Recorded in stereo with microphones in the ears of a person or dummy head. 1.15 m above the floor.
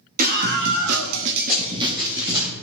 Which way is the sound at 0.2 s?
40° right (ahead or behind).